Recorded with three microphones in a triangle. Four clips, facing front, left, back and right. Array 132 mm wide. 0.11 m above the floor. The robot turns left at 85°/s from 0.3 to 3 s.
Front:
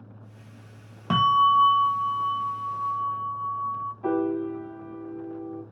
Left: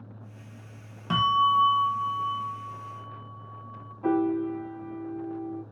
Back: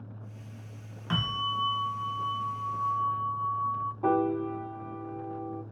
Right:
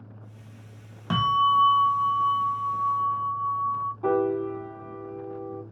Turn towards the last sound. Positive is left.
turn(degrees=-165)